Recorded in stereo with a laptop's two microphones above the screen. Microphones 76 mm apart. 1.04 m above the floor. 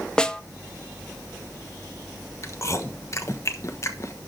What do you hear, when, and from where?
0.2 s a snare drum: 10° left (ahead or behind), 0.6 m
2.4 s chewing: 45° left (ahead or behind), 1.1 m